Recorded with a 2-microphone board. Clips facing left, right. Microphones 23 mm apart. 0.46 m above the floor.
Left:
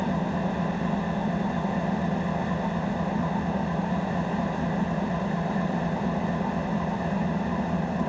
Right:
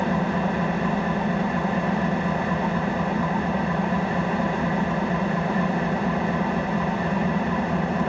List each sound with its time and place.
0.0 s an engine running: 30° right (ahead or behind), 1.5 m